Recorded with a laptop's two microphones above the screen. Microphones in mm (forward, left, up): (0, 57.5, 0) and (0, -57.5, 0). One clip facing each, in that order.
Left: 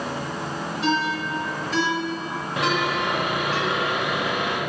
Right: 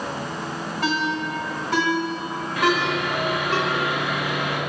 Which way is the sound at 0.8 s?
75° right (ahead or behind).